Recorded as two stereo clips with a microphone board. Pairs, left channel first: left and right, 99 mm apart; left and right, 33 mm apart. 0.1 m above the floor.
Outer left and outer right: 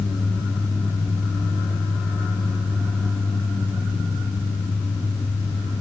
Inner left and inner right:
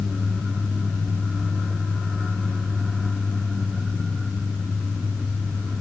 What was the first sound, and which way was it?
Only background noise.